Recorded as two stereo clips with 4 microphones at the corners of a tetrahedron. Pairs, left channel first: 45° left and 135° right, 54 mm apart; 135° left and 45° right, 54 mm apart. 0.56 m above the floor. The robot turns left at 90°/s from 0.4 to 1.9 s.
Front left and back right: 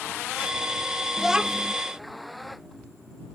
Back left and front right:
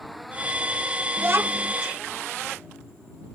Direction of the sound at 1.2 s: 45° right.